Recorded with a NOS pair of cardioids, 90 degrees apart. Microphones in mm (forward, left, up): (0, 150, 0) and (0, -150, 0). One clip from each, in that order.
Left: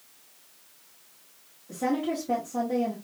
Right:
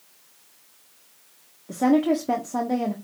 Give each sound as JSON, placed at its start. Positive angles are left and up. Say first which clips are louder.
{"t": 1.7, "sound": "a woman speaking", "louder": "right 8 dB", "azimuth_deg": -70, "distance_m": 1.1}